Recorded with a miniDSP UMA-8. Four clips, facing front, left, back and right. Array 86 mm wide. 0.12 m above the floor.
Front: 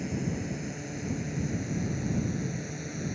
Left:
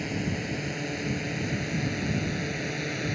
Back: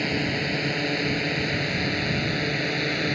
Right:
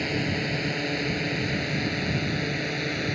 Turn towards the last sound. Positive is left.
turn(degrees=-165)